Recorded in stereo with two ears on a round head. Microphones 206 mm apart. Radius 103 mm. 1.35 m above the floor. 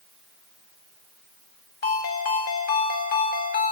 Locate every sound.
1.8 s a ringtone: 40° left (ahead or behind), 4.5 m